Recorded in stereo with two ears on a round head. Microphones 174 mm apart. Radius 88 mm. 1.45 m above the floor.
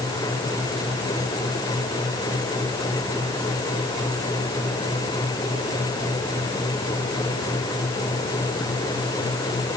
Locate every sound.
Only background noise.